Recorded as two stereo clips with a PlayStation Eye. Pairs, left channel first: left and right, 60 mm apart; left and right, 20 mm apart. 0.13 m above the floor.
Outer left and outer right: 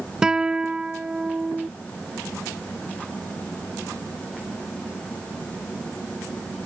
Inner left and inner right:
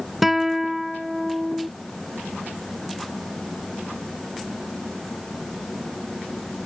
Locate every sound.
0.2 s a guitar: 10° right (ahead or behind)